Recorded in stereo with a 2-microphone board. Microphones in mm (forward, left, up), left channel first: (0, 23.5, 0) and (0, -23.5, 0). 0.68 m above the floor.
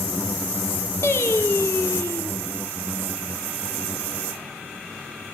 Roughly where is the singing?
Left.